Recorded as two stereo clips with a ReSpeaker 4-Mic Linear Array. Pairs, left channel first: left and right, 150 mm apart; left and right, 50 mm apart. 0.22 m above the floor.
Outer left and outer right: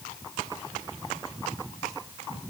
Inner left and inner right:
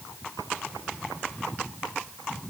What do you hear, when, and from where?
Only background noise.